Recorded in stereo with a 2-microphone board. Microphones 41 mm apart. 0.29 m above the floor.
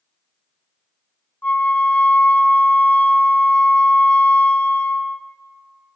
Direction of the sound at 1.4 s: 40° left (ahead or behind).